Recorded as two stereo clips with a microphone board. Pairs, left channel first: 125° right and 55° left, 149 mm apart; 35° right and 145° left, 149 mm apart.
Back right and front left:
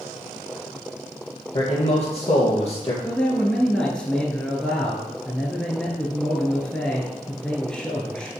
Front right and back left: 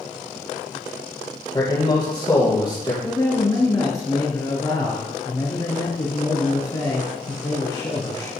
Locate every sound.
1.5 s a man speaking: 90° right, 2.5 m
3.0 s a man speaking: 50° right, 1.3 m